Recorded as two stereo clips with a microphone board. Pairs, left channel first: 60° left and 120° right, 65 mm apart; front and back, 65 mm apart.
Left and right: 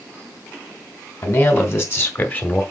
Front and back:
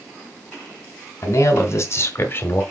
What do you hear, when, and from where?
1.2 s a man speaking: 25° left, 2.5 m; by 2.6 s 15° left, 1.5 m